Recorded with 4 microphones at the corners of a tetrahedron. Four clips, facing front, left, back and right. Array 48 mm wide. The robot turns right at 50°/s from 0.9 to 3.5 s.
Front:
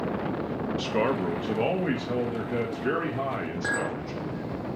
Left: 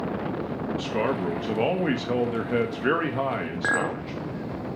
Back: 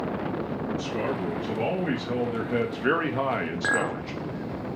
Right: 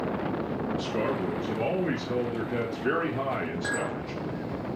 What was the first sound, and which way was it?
A man speaking, 30° left.